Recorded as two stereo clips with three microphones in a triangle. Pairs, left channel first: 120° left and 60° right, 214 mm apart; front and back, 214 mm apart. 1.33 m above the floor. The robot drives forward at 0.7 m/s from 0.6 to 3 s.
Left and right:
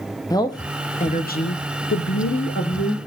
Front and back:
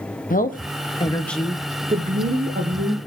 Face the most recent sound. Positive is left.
turn(degrees=150)